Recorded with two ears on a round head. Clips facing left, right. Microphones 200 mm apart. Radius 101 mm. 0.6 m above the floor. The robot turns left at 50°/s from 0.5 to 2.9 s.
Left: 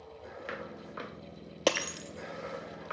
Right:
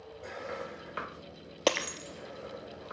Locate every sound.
1.7 s breaking glass: centre (ahead or behind), 0.7 m; by 2.9 s 35° left (ahead or behind), 0.7 m